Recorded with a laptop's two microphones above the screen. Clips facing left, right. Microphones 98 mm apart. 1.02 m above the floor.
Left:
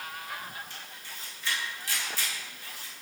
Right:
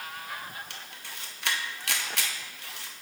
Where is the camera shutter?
75° right (ahead or behind), 0.7 m.